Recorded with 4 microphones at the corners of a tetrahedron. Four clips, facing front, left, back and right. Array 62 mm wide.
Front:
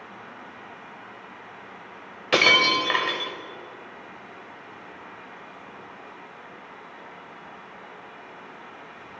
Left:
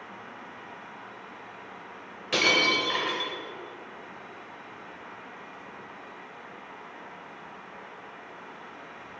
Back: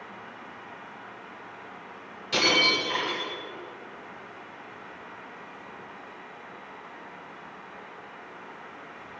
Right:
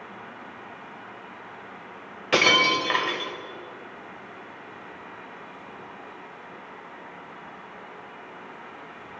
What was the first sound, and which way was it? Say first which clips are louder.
Breaking glass: right 4 dB, front 5 dB; 35° right.